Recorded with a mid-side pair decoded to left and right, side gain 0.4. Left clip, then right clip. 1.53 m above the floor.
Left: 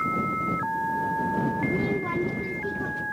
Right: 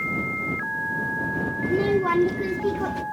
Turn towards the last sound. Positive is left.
turn(degrees=-70)